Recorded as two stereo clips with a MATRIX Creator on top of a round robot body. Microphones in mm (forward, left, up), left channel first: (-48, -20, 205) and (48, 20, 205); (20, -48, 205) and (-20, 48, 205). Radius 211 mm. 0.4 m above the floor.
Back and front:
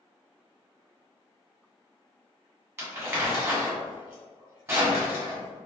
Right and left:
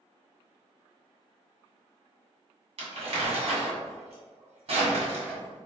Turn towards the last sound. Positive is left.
turn(degrees=90)